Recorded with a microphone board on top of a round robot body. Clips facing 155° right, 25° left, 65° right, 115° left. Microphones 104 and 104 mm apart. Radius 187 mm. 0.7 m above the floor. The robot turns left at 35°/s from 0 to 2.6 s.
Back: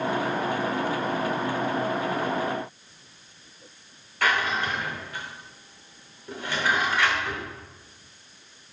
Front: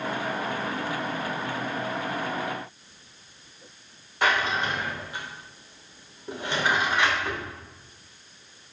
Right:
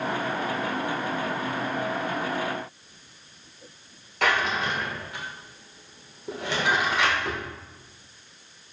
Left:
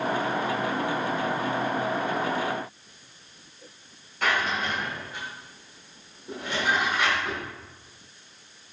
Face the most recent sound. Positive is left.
turn(degrees=-45)